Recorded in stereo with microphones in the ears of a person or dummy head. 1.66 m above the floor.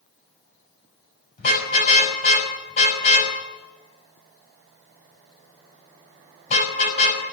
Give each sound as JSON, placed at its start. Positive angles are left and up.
{"t": 1.4, "sound": "a car horn", "side_deg": 35, "distance_m": 5.5}